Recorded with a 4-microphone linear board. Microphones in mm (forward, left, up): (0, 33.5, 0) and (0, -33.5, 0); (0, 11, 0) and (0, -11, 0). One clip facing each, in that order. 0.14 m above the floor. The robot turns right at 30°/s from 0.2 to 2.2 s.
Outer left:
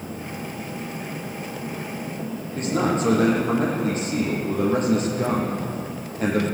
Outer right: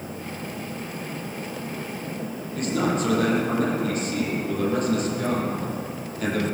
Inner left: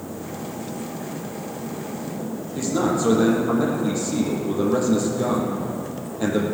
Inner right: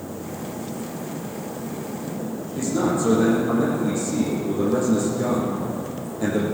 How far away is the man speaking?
About 5.5 m.